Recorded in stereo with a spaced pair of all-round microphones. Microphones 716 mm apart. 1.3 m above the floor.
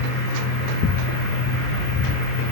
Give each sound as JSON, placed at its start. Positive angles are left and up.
{"t": 0.0, "sound": "a fan", "side_deg": -20, "distance_m": 1.1}